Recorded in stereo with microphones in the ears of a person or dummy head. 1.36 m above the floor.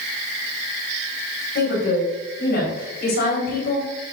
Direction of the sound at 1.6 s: 55° left (ahead or behind).